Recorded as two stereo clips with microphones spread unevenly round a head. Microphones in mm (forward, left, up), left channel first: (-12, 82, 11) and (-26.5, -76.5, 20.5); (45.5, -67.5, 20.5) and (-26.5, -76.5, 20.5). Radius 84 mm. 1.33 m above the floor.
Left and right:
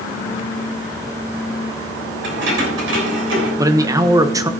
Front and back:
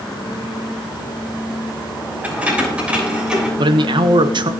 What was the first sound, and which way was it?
Keys jangling, 100° right.